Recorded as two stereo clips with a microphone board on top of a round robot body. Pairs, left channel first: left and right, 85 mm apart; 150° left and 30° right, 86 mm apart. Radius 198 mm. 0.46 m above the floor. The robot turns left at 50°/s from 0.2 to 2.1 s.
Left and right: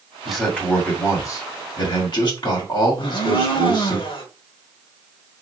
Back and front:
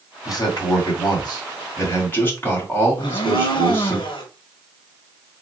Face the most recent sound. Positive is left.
turn(degrees=120)